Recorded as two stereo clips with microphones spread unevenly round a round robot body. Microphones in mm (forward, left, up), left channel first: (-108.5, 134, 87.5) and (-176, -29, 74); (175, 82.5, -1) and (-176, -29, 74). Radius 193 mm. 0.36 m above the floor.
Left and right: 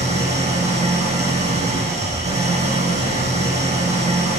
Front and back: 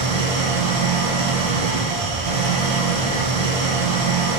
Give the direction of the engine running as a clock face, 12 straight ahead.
5 o'clock.